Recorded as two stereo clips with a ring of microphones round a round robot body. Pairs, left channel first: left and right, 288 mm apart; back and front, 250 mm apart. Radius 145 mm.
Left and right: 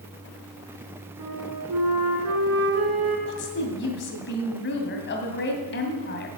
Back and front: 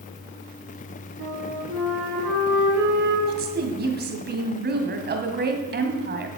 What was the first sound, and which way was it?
A flute, 50° right.